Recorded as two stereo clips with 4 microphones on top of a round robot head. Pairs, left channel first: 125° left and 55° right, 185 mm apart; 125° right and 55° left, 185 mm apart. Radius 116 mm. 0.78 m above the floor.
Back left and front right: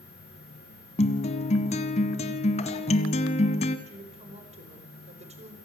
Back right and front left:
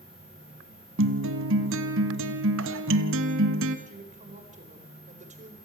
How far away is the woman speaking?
About 4.5 m.